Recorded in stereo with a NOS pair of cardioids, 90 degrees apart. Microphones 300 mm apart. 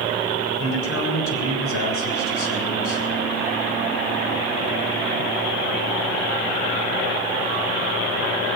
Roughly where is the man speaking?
Ahead left.